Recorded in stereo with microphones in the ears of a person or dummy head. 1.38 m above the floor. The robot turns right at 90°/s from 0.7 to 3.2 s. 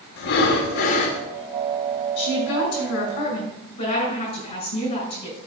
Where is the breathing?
115° left, 1.9 m; by 1.2 s 160° left, 1.9 m.